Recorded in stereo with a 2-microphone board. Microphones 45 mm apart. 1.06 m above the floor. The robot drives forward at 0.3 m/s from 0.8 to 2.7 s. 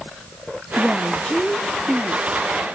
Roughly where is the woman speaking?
Left.